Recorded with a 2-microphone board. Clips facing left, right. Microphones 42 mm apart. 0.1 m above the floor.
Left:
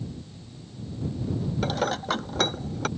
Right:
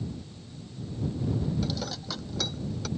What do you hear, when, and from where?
1.6 s dishes clattering: 50° left (ahead or behind)